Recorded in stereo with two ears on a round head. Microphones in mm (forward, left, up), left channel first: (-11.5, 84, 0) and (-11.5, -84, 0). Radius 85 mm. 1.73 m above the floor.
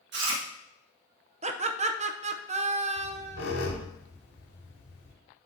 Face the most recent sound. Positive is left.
turn(degrees=65)  # may be behind; listen again after turning